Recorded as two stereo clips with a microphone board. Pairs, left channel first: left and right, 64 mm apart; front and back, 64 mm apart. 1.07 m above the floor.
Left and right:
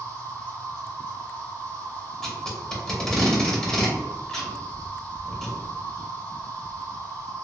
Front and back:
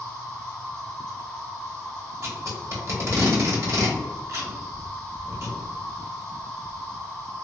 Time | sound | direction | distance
0.0 | an insect | 70° left | 1.2 m
2.2 | tape being pulled | 165° left | 0.9 m